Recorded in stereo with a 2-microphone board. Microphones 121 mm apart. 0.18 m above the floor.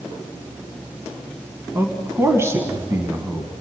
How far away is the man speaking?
About 1.4 m.